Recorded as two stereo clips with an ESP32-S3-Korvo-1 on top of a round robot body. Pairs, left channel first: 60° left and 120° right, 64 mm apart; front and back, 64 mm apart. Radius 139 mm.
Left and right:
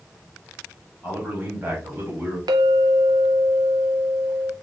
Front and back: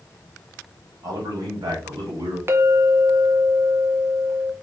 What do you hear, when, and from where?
1.0 s a man speaking: 175° left, 2.5 m; by 2.4 s 175° right, 3 m
2.5 s a clink: 125° right, 0.6 m